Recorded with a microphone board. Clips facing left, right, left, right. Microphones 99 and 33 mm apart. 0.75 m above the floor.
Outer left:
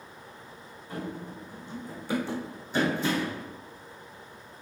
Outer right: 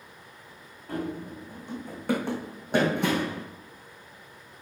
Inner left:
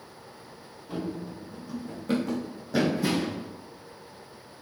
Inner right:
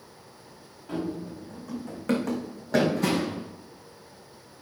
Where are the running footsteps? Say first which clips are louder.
Outer right 4 dB, inner right 2 dB; 65° right (ahead or behind), 4 m.